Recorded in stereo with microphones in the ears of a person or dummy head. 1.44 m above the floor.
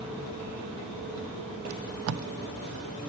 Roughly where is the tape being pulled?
Right.